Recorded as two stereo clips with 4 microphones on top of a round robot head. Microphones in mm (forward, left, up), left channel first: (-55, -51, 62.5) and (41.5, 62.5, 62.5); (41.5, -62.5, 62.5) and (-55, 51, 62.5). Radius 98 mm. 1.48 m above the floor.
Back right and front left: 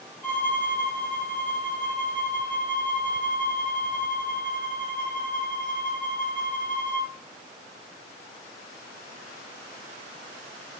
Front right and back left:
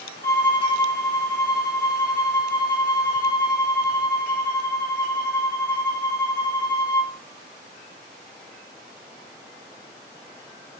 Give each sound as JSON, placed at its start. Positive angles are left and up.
{"t": 0.2, "sound": "a violin", "azimuth_deg": 150, "distance_m": 1.0}